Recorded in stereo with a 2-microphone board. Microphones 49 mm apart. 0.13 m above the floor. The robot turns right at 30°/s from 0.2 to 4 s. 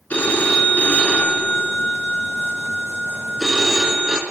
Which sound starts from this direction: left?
A phone ringing, at 0.1 s.